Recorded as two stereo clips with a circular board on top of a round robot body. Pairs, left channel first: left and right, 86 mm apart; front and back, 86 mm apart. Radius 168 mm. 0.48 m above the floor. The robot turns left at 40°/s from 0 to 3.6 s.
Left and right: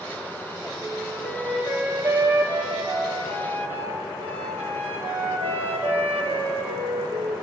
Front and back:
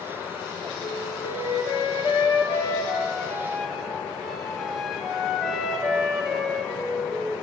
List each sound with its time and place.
0.8 s a flute: 20° left, 3 m; by 7.4 s 90° right, 3 m